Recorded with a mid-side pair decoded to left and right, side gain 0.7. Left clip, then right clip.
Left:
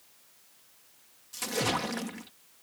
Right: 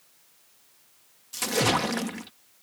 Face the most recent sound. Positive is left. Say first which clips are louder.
# right 6 dB
turn(degrees=-25)